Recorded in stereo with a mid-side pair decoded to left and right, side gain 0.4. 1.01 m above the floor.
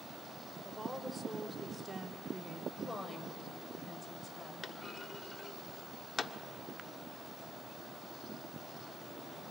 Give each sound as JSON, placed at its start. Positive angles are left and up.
{"t": 0.7, "sound": "a woman speaking", "azimuth_deg": -5, "distance_m": 3.0}
{"t": 2.8, "sound": "a woman speaking", "azimuth_deg": 30, "distance_m": 4.0}
{"t": 4.6, "sound": "a clunk", "azimuth_deg": 45, "distance_m": 1.3}